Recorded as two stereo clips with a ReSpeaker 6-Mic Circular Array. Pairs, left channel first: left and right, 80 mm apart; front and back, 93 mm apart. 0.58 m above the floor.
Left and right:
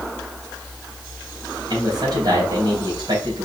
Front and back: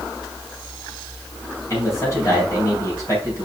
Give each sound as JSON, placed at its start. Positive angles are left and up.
{"t": 1.7, "sound": "a man speaking", "azimuth_deg": -55, "distance_m": 3.5}